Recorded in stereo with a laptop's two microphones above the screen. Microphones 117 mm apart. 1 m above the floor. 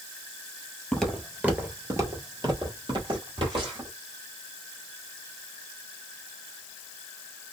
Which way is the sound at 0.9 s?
5° left (ahead or behind).